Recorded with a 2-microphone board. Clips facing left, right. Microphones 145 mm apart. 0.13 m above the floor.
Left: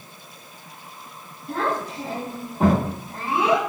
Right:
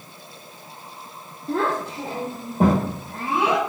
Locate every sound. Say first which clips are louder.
1.5 s a child speaking: right 2 dB; 40° right (ahead or behind), 1.4 m; by 3.6 s 45° right (ahead or behind), 2.5 m